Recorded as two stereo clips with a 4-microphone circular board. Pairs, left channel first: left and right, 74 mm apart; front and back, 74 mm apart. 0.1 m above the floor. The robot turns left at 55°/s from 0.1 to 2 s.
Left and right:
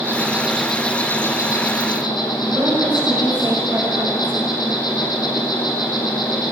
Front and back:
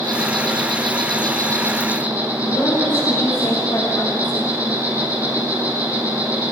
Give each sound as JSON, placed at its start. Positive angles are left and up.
{"t": 0.0, "sound": "an insect", "azimuth_deg": -150, "distance_m": 5.5}
{"t": 2.5, "sound": "a woman speaking", "azimuth_deg": -20, "distance_m": 9.0}